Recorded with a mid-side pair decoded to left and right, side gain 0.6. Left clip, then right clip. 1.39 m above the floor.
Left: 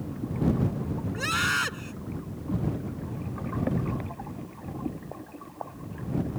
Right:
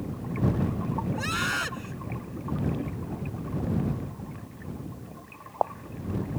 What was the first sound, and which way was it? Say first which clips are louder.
A scream: left 4 dB; 15° left.